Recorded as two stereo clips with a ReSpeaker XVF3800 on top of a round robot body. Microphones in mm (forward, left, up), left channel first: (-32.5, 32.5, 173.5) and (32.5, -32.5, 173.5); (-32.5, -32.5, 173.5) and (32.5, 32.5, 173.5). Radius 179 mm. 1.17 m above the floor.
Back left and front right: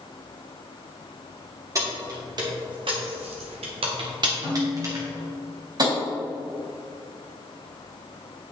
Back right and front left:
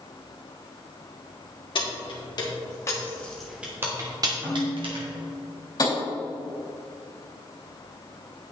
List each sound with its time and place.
1.8 s keys jangling: 100° right, 2 m; by 5.0 s 15° left, 2.0 m
4.4 s a snare drum: 20° right, 3 m
5.8 s tapping: 90° right, 3.5 m